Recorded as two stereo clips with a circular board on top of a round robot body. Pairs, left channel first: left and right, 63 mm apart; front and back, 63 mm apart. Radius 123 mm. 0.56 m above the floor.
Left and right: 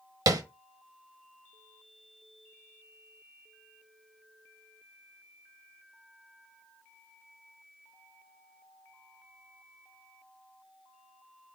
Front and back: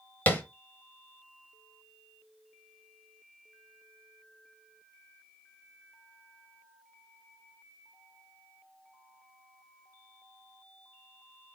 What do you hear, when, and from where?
0.3 s tapping: 65° right, 1.1 m